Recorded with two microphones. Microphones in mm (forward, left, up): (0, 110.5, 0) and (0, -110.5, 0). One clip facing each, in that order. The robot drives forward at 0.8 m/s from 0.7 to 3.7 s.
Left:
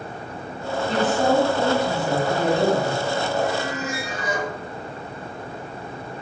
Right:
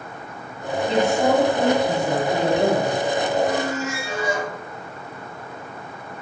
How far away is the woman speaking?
About 1.5 m.